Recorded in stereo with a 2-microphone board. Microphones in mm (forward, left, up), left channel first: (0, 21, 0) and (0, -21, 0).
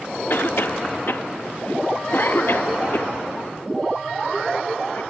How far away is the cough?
About 0.8 m.